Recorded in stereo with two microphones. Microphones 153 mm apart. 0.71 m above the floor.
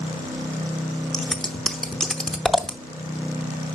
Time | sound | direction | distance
1.1 | scissors | 5° left (ahead or behind) | 0.7 m